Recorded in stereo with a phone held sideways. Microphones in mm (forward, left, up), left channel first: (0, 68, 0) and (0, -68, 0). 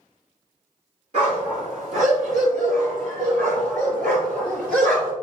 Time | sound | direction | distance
1.1 | a dog barking | 55° right (ahead or behind) | 4 m